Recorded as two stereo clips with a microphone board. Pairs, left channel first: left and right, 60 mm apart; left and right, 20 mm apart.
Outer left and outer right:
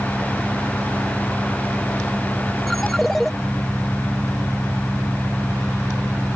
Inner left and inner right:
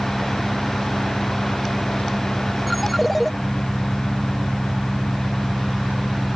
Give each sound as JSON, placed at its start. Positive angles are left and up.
{"t": 0.0, "sound": "an engine running", "side_deg": -5}
{"t": 2.7, "sound": "a ringtone", "side_deg": 0}